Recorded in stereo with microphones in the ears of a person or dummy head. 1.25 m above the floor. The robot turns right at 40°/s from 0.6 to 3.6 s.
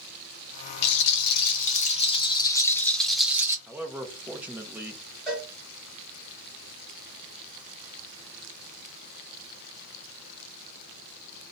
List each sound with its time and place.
0.8 s a rattle: 90° left, 0.6 m; by 3.6 s 160° right, 0.6 m
3.7 s a man speaking: 5° right (ahead or behind), 0.5 m
5.3 s a cowbell: 5° right (ahead or behind), 1.7 m